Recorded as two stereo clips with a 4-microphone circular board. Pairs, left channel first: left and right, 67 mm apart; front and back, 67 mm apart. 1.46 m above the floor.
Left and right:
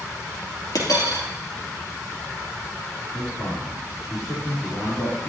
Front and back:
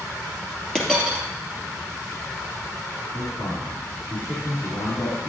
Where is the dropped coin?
80° left, 3.5 m.